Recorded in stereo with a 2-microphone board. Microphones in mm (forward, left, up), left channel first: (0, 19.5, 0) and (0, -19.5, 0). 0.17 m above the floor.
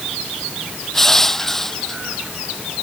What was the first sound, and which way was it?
Crushing, 10° left (ahead or behind).